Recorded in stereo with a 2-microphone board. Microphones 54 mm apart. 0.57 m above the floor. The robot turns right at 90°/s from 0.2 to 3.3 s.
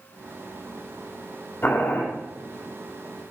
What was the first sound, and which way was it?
Boiling, 40° left.